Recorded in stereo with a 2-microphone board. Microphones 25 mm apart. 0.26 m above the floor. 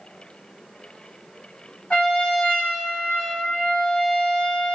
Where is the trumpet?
50° left (ahead or behind), 1.2 m.